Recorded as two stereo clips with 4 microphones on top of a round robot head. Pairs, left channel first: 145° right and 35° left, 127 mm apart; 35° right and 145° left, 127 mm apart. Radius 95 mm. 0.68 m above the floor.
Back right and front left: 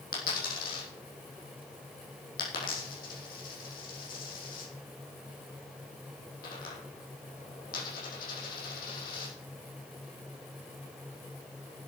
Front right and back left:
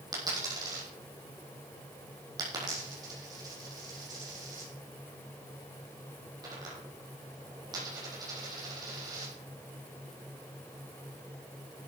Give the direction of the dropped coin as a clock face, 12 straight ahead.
5 o'clock.